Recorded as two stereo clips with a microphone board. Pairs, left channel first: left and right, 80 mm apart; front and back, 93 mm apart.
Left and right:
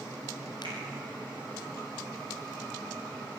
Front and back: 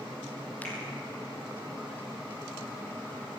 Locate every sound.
0.6 s a finger snap: 70° left, 3.5 m